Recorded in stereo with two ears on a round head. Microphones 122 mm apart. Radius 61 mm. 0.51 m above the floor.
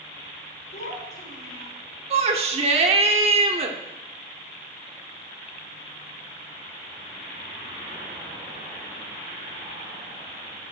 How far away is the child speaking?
About 4 m.